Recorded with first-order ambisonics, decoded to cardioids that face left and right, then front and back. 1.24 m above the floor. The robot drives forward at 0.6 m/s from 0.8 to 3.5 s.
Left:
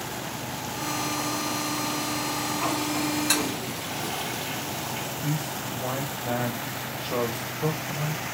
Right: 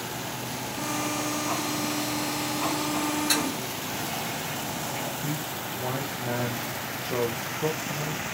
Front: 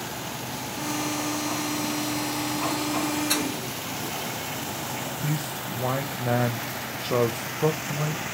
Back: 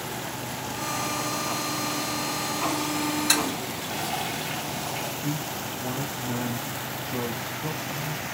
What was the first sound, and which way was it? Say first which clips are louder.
A toilet flushing: even, back 2 dB; 175° left.